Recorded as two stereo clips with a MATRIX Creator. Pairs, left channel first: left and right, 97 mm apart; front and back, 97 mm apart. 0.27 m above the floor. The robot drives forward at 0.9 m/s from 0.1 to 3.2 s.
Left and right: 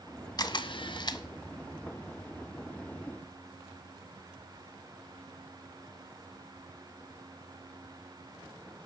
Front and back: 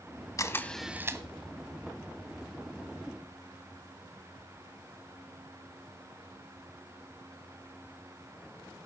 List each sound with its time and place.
0.4 s a camera shutter: 50° left, 0.7 m; by 1.2 s 130° left, 0.6 m